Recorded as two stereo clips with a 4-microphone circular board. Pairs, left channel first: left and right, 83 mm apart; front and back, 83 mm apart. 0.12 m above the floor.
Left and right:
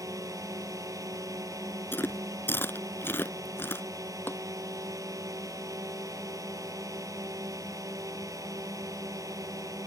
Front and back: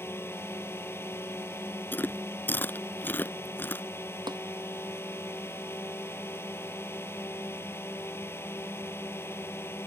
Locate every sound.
0.0 s a drone: 55° right
1.9 s chewing: 45° left
4.3 s tapping: 155° left